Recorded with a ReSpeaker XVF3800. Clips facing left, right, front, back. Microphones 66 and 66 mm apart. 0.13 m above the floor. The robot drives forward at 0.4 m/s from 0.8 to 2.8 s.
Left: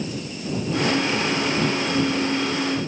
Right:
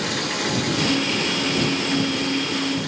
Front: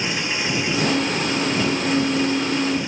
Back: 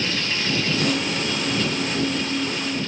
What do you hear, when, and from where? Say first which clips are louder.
0.0 s running water: right 5 dB, front 1 dB; 75° right